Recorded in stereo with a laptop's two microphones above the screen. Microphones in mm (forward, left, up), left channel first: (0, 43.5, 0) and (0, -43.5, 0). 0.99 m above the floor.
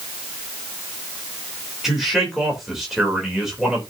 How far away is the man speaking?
About 3 m.